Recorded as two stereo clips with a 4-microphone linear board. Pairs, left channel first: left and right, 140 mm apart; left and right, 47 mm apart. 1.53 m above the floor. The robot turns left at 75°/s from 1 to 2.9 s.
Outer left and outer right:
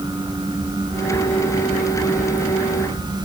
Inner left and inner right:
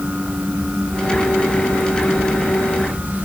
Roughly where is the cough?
No cough in this recording.